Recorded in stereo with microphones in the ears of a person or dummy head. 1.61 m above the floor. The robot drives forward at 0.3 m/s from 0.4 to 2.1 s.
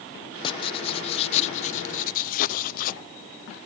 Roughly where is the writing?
Left.